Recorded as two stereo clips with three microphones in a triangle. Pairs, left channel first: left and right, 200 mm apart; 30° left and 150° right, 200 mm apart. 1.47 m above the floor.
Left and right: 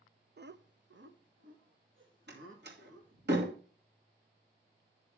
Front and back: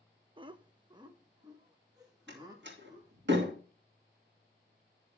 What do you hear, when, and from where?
0.4 s laughter: 90° right, 0.5 m; by 3.3 s 80° right, 3 m
2.3 s a door slam: 125° right, 2.5 m